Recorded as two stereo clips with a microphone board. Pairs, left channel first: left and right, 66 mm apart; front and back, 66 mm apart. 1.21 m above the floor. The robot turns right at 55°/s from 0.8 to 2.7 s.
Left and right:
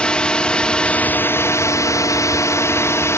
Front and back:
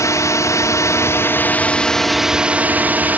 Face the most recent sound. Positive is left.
turn(degrees=120)